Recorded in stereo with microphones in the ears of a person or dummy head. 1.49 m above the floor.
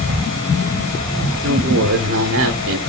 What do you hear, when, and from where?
1.4 s a woman speaking: 65° right (ahead or behind), 1.2 m